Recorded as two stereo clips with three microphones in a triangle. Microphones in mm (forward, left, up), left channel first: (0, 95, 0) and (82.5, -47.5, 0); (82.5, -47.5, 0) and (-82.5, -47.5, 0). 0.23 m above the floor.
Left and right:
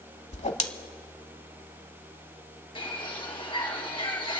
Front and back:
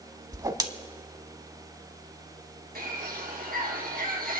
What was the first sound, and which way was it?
A whoosh, 125° left.